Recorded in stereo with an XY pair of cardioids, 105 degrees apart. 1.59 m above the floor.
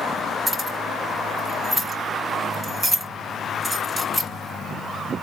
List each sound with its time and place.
0.5 s keys jangling: 15° right, 2.0 m